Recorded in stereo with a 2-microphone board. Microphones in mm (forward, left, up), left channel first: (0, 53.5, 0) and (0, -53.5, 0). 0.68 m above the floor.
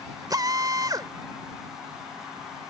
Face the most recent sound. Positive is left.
turn(degrees=-35)  # may be behind; listen again after turning